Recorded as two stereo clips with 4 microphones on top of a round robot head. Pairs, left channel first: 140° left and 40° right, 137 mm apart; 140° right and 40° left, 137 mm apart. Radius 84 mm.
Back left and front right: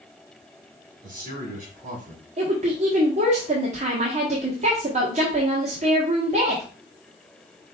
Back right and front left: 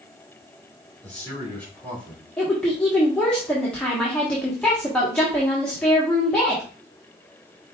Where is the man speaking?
60° right, 3 m.